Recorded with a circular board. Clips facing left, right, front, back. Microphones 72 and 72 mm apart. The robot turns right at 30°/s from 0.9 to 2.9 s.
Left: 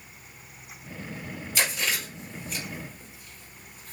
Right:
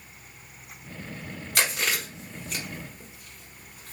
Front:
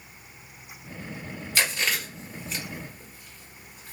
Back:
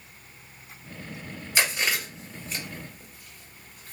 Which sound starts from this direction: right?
Chewing, at 1.6 s.